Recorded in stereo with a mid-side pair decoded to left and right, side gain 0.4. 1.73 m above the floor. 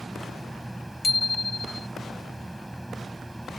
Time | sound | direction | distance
0.0 | a fan | 15° right | ?
1.0 | a bicycle bell | 25° left | ?